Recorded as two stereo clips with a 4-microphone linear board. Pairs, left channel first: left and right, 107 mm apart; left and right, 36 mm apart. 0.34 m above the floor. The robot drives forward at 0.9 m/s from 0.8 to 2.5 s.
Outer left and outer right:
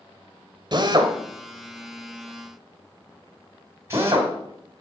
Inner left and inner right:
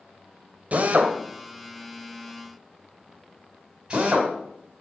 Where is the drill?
45° right (ahead or behind), 1.3 m; by 4.3 s 25° right (ahead or behind), 2 m.